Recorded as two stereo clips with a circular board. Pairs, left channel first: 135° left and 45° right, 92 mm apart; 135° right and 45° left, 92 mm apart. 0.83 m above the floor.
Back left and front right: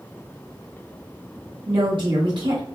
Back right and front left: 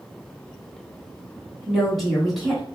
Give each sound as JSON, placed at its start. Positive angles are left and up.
{"t": 1.7, "sound": "a woman speaking", "azimuth_deg": -45, "distance_m": 1.5}